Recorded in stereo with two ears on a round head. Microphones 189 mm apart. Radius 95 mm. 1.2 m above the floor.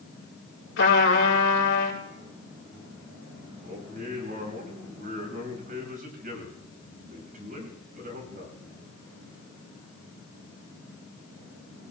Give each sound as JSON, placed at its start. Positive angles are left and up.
{"t": 0.8, "sound": "a trumpet", "side_deg": 65, "distance_m": 4.5}
{"t": 3.6, "sound": "a man speaking", "side_deg": -40, "distance_m": 6.0}